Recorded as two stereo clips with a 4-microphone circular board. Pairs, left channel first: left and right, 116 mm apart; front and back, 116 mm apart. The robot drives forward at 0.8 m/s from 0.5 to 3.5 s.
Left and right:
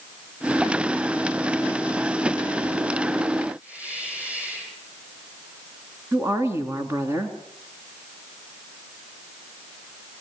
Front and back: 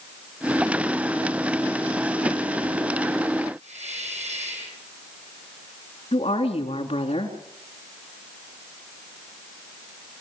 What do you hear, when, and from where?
3.6 s a hiss: 165° right, 9.5 m
6.1 s a woman speaking: 25° right, 4 m